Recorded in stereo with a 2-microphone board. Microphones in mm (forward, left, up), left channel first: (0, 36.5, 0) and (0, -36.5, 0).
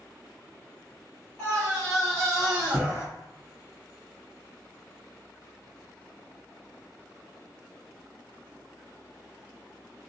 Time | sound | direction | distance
1.4 | a scream | 15° left (ahead or behind) | 1.3 m